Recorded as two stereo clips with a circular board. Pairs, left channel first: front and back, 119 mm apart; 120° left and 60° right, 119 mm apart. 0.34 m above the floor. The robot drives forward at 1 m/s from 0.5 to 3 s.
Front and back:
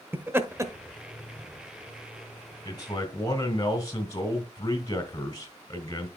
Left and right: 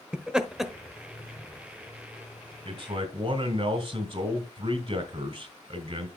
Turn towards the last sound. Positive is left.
turn(degrees=-50)